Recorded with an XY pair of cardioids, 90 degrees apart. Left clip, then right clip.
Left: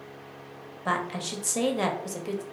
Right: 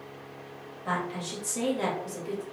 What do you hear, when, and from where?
0.8 s a woman speaking: 65° left, 0.9 m